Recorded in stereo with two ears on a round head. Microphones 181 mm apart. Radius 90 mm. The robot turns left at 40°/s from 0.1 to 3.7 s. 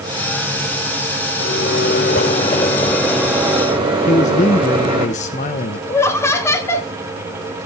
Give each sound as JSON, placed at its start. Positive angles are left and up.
{"t": 1.4, "sound": "a microwave", "azimuth_deg": 70, "distance_m": 5.0}
{"t": 4.1, "sound": "a man speaking", "side_deg": 35, "distance_m": 1.0}
{"t": 5.9, "sound": "laughter", "side_deg": 15, "distance_m": 2.0}